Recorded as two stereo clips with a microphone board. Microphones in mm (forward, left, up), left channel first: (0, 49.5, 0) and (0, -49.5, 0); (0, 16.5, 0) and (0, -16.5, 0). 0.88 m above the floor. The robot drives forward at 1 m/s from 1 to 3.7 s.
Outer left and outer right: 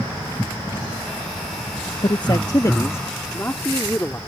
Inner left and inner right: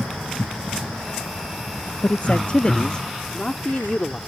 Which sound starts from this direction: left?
A man speaking, at 2.0 s.